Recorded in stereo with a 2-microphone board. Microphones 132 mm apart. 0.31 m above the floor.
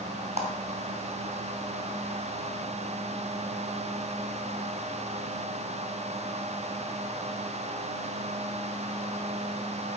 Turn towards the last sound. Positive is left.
turn(degrees=-55)  # may be behind; listen again after turning